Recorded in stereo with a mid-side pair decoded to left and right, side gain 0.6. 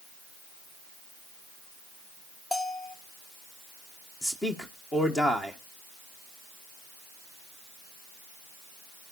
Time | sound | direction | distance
2.5 | a bell | 20° left | 1.5 m
4.2 | a man speaking | 20° left | 1.7 m